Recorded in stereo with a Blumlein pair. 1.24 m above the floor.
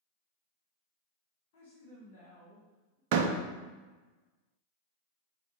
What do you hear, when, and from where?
1.5 s a woman speaking: 50° left, 1.4 m
3.1 s a door slam: 45° right, 0.5 m